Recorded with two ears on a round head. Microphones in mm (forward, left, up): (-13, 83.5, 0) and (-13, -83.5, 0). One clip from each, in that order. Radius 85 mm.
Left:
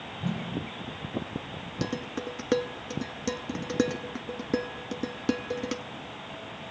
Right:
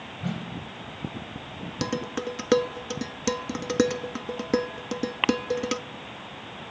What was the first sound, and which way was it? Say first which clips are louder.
A whoosh: left 1 dB; 15° right (ahead or behind).